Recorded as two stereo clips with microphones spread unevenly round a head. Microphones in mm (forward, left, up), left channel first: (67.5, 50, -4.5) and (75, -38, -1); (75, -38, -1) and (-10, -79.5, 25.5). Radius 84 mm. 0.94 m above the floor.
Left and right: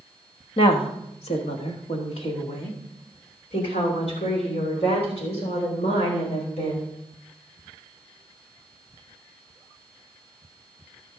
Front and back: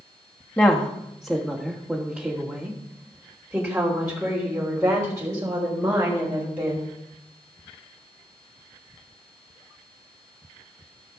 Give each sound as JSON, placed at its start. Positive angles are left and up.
{"t": 0.6, "sound": "a woman speaking", "azimuth_deg": 95, "distance_m": 1.4}